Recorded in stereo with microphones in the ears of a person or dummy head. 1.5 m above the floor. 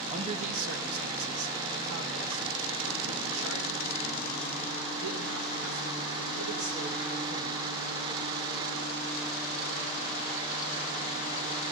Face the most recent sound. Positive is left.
turn(degrees=-75)  # may be behind; listen again after turning